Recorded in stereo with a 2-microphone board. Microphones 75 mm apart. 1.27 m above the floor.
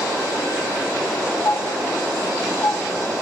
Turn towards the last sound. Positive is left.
turn(degrees=55)  # may be behind; listen again after turning